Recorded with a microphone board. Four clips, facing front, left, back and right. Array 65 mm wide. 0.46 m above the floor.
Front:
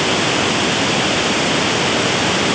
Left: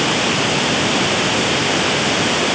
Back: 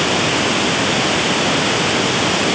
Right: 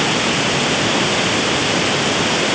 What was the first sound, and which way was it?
Only background noise.